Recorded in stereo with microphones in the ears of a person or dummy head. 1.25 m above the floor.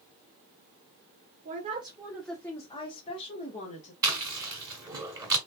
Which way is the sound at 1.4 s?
40° right (ahead or behind).